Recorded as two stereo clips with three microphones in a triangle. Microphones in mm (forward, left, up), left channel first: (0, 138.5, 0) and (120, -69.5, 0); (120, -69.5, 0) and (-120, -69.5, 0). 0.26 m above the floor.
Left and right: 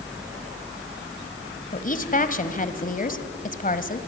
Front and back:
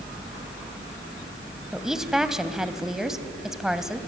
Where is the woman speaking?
95° left, 1.5 m.